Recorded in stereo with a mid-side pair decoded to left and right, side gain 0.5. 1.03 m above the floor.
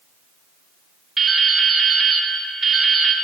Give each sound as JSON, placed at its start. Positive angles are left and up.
{"t": 1.2, "sound": "dripping", "azimuth_deg": -20, "distance_m": 1.1}